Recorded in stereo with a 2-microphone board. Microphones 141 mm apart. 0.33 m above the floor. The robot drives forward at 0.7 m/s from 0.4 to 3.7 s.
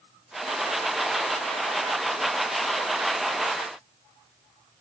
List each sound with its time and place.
Only background noise.